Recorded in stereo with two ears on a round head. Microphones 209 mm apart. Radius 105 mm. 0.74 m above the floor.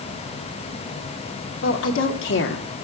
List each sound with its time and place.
1.6 s a woman speaking: 60° left (ahead or behind), 2 m; by 2.7 s 50° left (ahead or behind), 1.4 m